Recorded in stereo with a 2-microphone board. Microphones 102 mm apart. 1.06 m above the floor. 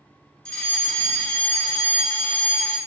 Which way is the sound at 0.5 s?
10° left (ahead or behind).